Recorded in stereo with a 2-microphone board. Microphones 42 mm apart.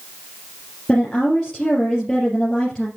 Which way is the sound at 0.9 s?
15° left (ahead or behind).